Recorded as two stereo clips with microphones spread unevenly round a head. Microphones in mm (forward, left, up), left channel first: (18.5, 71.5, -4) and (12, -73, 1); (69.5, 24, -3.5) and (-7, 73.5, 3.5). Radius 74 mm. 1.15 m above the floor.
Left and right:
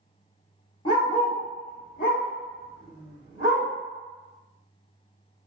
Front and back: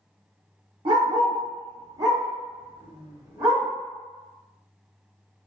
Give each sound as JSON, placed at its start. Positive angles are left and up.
{"t": 0.8, "sound": "a dog barking", "azimuth_deg": 145, "distance_m": 1.0}